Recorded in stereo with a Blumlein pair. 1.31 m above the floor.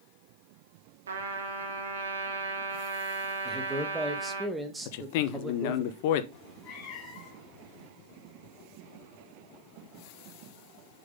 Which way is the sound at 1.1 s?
65° right.